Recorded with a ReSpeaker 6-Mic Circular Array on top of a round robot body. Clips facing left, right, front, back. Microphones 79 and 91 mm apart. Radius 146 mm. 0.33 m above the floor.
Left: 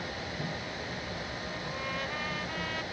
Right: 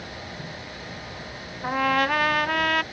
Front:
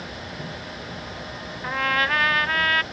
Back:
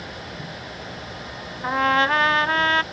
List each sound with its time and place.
1.6 s a trumpet: 115° right